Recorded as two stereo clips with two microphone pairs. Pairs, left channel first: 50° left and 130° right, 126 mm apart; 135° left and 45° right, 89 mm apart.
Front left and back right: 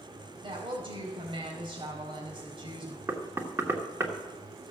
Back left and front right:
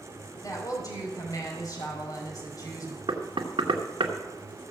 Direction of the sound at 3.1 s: 60° right.